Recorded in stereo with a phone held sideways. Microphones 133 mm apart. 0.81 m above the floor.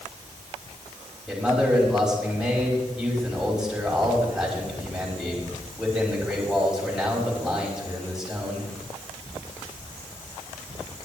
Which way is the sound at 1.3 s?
5° right (ahead or behind).